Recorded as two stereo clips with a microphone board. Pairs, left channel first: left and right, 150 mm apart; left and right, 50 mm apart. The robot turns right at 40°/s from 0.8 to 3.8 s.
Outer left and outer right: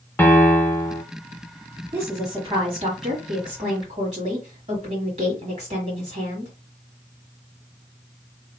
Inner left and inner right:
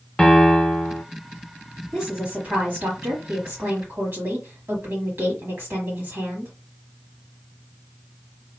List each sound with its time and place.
0.2 s a piano: 15° left (ahead or behind), 0.6 m; by 1.0 s 20° left (ahead or behind), 0.6 m
1.9 s a woman speaking: 160° right, 1.4 m; by 6.5 s 85° right, 1.4 m